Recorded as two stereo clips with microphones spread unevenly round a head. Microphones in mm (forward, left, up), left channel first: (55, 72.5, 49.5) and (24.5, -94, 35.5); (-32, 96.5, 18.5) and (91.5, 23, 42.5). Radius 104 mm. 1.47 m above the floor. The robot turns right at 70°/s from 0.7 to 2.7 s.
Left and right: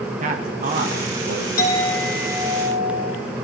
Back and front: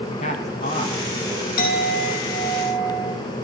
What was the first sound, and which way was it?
A man speaking, 155° right.